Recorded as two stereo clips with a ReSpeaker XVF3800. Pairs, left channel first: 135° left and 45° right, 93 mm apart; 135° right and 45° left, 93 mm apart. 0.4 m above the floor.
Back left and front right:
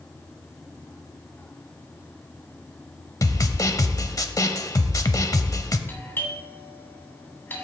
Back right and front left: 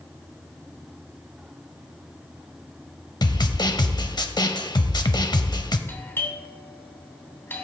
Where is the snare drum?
175° right, 0.6 m.